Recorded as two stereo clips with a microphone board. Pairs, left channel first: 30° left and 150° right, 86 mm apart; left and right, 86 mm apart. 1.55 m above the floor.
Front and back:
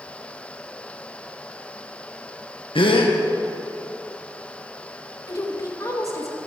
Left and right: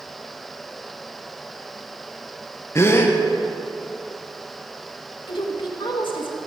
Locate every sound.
2.8 s a gasp: 30° left, 1.7 m
5.3 s a woman speaking: 80° left, 2 m